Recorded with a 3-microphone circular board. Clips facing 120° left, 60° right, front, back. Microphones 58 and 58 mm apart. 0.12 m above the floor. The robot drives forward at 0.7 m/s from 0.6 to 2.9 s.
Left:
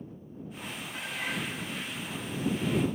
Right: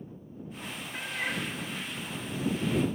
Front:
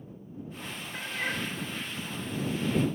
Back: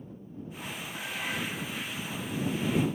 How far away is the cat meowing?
About 1.2 m.